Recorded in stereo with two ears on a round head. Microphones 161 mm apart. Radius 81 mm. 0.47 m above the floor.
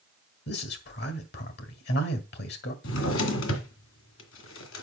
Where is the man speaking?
65° left (ahead or behind), 2 m.